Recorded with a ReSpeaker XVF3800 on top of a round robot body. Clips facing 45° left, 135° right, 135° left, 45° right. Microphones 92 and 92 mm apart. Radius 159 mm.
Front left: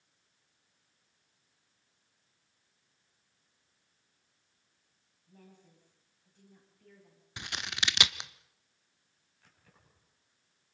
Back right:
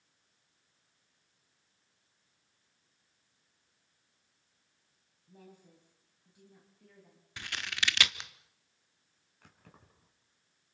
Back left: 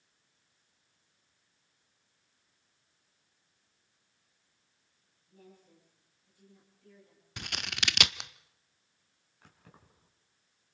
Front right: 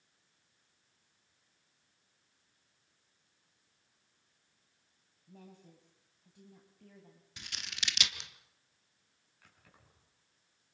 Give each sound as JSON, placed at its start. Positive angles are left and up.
{"t": 5.3, "sound": "a woman speaking", "azimuth_deg": -60, "distance_m": 4.5}
{"t": 7.4, "sound": "scissors", "azimuth_deg": 115, "distance_m": 0.9}
{"t": 9.4, "sound": "keys jangling", "azimuth_deg": -170, "distance_m": 4.5}